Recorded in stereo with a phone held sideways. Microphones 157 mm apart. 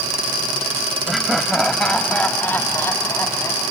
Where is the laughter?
Centre (ahead or behind); by 3.7 s 20° left (ahead or behind).